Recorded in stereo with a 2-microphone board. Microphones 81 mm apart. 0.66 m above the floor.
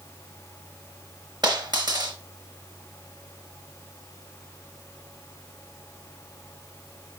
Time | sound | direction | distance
1.4 | a dropped coin | 55° right (ahead or behind) | 3.5 m